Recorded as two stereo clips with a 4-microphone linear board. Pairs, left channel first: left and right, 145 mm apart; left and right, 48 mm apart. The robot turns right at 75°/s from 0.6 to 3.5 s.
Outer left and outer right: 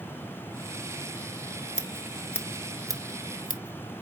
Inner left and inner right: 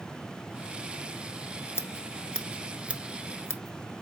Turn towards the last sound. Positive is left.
turn(degrees=-60)  # may be behind; listen again after turning